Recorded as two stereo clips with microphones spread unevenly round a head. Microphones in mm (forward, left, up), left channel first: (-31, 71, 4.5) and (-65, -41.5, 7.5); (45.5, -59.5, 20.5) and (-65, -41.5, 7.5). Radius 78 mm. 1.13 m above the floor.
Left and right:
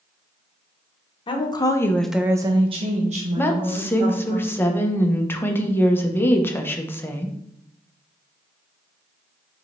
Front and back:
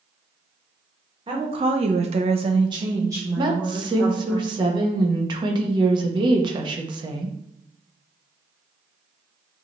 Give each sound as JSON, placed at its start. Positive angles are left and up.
{"t": 1.3, "sound": "a woman speaking", "azimuth_deg": 115, "distance_m": 1.1}
{"t": 3.4, "sound": "a woman speaking", "azimuth_deg": 140, "distance_m": 0.9}